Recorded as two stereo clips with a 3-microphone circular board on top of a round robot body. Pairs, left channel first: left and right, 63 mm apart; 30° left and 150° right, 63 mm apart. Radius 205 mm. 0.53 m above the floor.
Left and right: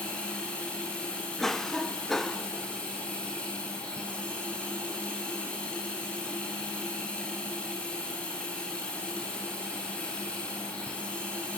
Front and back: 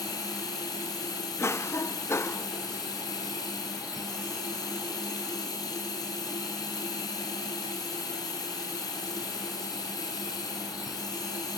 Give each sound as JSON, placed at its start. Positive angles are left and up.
{"t": 0.0, "sound": "running water", "azimuth_deg": 15, "distance_m": 2.0}
{"t": 1.4, "sound": "a cough", "azimuth_deg": 5, "distance_m": 0.9}